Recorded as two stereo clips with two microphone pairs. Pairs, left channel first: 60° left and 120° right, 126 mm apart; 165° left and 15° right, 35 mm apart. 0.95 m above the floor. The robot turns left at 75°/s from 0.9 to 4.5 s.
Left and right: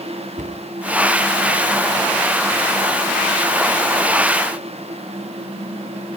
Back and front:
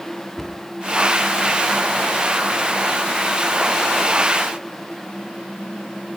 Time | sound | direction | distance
0.4 | a cupboard door | 110° right | 1.5 m